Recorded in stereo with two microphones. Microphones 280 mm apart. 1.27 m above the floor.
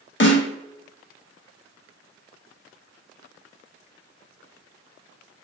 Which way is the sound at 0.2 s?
45° left (ahead or behind).